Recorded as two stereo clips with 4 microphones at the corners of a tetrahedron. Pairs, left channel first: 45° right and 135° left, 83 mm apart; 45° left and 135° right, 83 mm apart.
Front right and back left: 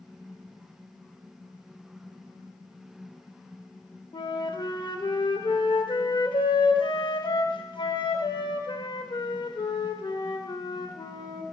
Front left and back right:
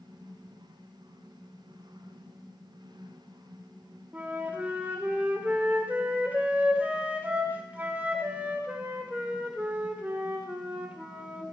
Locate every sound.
4.1 s a flute: 60° right, 0.6 m